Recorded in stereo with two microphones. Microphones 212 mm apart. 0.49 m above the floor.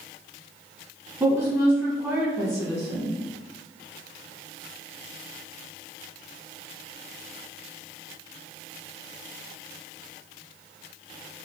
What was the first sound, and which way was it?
A woman speaking, 10° right (ahead or behind).